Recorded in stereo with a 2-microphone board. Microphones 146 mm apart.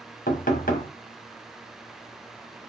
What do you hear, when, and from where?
0.3 s knocking: 70° left (ahead or behind), 1.1 m